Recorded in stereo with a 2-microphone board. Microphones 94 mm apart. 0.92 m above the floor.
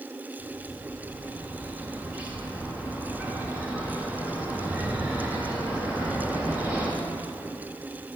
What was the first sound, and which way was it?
A bird, 15° right (ahead or behind).